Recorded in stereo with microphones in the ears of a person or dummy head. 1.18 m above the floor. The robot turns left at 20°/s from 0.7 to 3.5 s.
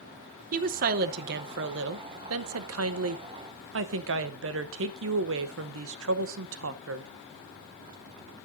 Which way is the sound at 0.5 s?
45° right.